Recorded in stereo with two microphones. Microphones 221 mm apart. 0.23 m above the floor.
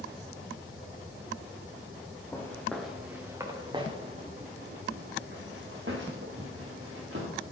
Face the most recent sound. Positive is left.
turn(degrees=-70)  # may be behind; listen again after turning